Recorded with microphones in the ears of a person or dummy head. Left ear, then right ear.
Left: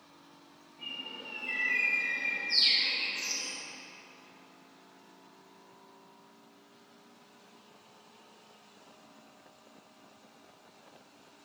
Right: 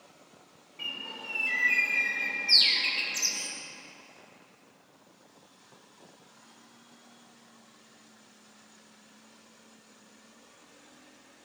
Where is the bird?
75° right (ahead or behind), 0.9 m.